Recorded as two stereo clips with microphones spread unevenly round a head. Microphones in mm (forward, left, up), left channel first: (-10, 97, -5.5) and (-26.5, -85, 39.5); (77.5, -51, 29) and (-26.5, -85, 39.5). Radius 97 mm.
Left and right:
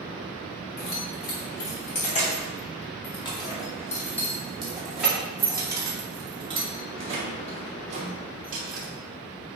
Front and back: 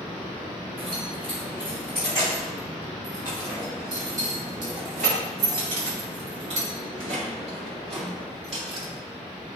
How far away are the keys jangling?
About 3 m.